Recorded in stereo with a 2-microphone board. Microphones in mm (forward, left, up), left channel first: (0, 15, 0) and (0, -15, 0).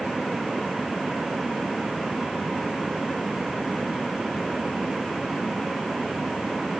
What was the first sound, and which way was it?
Only background noise.